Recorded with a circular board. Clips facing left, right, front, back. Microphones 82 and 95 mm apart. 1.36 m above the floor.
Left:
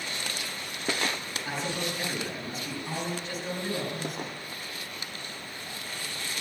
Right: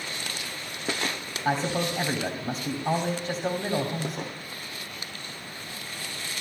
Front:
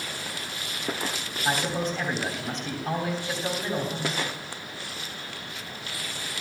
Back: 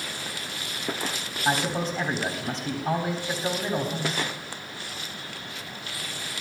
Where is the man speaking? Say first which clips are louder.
Right 7 dB, back 1 dB; 95° right, 2.5 m.